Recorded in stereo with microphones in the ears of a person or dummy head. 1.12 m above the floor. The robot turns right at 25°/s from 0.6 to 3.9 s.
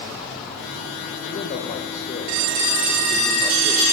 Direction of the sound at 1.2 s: 55° left (ahead or behind).